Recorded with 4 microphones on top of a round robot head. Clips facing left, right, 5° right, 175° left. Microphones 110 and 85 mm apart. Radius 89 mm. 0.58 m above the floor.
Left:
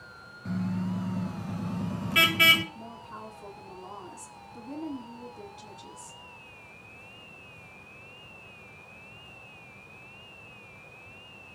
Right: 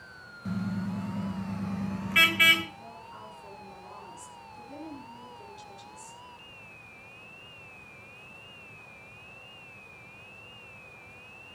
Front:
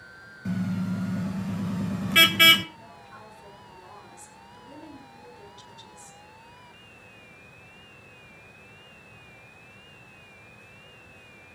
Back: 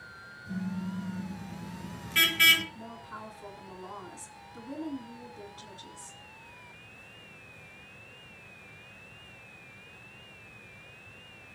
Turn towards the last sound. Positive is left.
turn(degrees=125)